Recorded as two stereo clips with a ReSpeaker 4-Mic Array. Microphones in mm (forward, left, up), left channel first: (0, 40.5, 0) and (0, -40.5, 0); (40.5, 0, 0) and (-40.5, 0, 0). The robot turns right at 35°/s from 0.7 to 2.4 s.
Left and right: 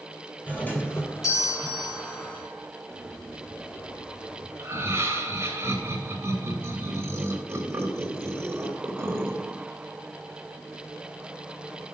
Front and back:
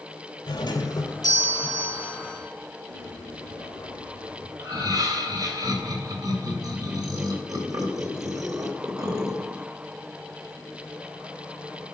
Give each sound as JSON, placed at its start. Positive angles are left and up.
{"t": 0.5, "sound": "a doorbell", "azimuth_deg": 20, "distance_m": 3.0}
{"t": 2.9, "sound": "a bird", "azimuth_deg": 180, "distance_m": 8.0}
{"t": 4.6, "sound": "laughter", "azimuth_deg": -150, "distance_m": 3.0}